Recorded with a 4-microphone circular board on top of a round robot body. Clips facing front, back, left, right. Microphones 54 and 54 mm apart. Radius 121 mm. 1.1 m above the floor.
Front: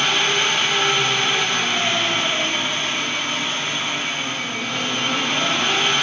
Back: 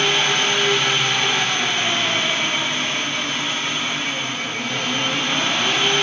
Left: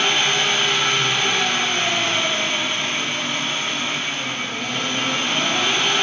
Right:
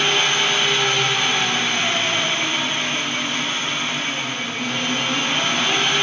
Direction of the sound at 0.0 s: 150° right.